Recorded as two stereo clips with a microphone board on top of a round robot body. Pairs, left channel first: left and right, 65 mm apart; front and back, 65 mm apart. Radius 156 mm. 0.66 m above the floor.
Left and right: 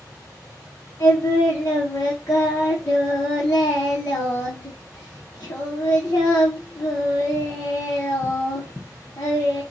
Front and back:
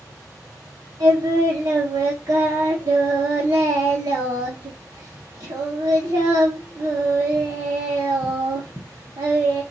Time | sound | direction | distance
1.0 | singing | 140° left | 0.6 m